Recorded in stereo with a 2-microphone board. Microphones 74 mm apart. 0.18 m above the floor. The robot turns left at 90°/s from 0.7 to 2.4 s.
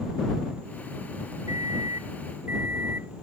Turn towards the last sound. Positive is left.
turn(degrees=-145)